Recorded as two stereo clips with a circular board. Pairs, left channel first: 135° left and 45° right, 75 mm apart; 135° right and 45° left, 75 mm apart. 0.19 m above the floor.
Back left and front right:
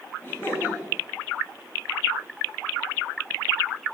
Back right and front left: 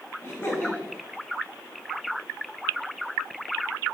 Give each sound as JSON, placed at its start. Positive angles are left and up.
{"t": 0.2, "sound": "laughter", "azimuth_deg": -175, "distance_m": 2.0}